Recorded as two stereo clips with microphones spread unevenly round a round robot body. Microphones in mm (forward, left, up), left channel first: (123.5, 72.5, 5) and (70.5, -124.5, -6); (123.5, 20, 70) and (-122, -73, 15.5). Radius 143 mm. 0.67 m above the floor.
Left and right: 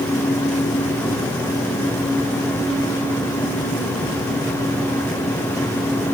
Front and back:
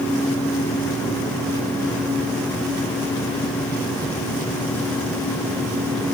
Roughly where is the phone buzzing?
No phone buzzing in this recording.